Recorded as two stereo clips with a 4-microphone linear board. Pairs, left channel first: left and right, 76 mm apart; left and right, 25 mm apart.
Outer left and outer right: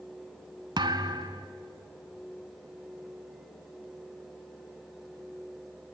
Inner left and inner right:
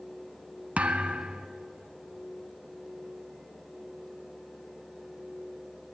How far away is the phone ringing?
No phone ringing in this recording.